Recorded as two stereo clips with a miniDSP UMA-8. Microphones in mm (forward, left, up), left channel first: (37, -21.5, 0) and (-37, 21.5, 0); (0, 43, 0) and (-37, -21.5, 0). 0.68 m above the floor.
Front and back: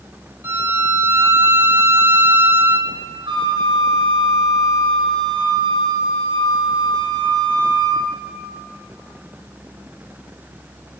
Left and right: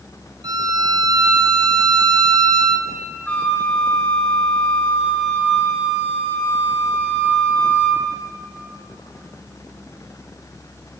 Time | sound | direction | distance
0.4 | a violin | 145° right | 1.6 m
3.3 | a flute | 130° left | 5 m